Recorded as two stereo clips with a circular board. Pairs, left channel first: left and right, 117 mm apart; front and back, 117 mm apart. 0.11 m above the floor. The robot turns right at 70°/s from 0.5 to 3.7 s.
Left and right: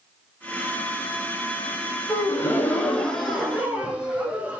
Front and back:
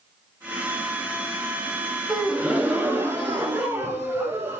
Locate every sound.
2.1 s a gasp: 95° left, 0.7 m; by 4.6 s 150° right, 0.7 m